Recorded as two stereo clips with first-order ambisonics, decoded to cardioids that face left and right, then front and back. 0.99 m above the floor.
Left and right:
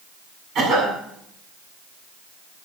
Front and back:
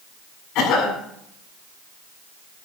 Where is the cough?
40° right, 8 m.